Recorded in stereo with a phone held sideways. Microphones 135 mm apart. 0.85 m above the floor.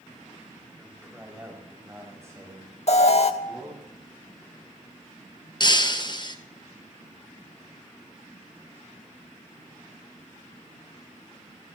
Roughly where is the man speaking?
Centre.